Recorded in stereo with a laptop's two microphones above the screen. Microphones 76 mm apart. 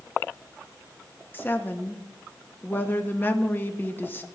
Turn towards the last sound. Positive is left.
turn(degrees=25)  # may be behind; listen again after turning